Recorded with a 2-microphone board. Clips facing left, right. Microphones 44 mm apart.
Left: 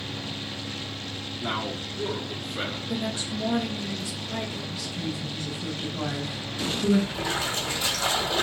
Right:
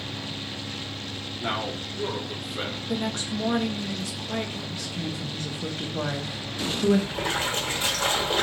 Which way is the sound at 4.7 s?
50° right (ahead or behind).